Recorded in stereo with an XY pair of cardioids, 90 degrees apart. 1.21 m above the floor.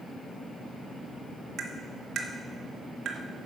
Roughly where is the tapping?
Right.